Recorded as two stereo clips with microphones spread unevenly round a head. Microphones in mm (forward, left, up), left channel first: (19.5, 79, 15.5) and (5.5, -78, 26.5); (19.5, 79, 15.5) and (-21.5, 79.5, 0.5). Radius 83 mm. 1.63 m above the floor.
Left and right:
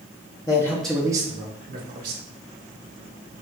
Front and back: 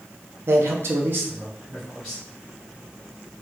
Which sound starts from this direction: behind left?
A man speaking, at 0.5 s.